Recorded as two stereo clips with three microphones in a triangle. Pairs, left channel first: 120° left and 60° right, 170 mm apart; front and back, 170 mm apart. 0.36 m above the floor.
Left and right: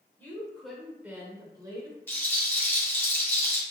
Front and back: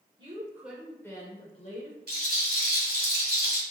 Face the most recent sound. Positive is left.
turn(degrees=-165)